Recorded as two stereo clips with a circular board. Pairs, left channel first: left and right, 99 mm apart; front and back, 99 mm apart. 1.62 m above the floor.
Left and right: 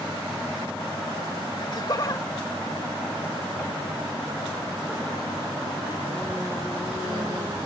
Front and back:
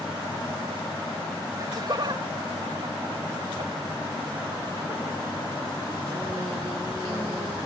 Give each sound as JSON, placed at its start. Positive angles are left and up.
{"t": 1.6, "sound": "laughter", "azimuth_deg": 130}